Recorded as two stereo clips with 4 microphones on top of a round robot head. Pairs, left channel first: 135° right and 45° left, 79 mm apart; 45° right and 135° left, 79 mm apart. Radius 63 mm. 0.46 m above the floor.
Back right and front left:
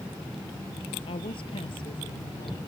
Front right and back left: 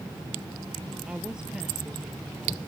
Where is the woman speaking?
145° right.